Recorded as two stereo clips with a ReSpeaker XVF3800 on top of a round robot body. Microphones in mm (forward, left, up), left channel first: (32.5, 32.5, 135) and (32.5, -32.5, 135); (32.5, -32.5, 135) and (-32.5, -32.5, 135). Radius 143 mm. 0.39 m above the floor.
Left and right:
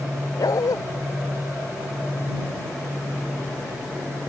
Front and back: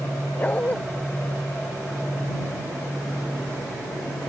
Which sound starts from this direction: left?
A dog barking, at 0.4 s.